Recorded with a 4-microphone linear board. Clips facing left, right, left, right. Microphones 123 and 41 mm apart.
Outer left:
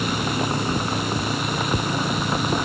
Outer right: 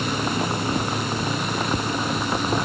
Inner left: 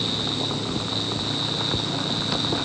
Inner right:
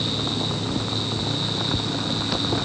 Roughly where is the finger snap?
I don't hear a finger snap.